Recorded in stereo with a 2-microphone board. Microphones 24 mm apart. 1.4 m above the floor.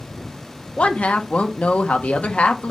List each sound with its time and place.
0.8 s a woman speaking: 80° left, 1.2 m